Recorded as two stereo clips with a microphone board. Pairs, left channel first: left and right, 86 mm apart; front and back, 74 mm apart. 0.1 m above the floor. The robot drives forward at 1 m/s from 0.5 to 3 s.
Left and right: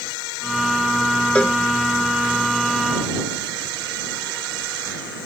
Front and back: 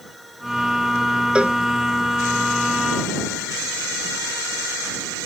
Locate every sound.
1.4 s a cowbell: 135° left; by 1.6 s 150° left